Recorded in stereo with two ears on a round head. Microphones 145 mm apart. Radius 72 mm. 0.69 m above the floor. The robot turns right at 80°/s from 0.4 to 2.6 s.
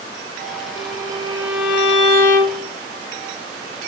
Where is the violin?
70° right, 5 m; by 2.7 s 80° left, 5 m.